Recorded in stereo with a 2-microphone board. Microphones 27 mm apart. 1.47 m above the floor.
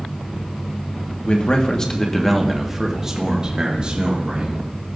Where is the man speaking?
40° left (ahead or behind), 1.2 m; by 4.7 s 50° right (ahead or behind), 2 m.